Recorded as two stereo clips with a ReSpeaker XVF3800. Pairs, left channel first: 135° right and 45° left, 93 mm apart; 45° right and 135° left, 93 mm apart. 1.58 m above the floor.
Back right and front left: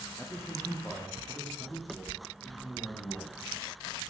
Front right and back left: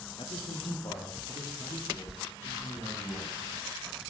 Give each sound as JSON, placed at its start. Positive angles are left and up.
{"t": 0.2, "sound": "a man speaking", "azimuth_deg": -65, "distance_m": 0.6}